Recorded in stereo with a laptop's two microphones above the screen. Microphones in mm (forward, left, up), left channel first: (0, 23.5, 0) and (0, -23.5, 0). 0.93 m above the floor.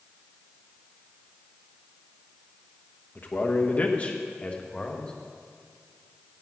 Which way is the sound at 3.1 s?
45° left (ahead or behind).